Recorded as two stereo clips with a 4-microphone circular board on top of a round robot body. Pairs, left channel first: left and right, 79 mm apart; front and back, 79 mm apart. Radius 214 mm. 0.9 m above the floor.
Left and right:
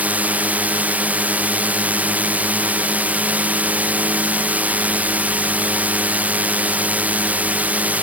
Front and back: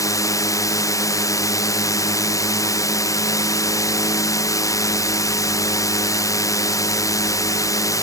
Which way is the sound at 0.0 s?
25° right.